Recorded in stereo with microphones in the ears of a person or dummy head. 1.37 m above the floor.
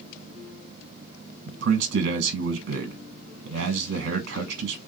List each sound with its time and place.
1.5 s a man speaking: 60° right (ahead or behind), 1.0 m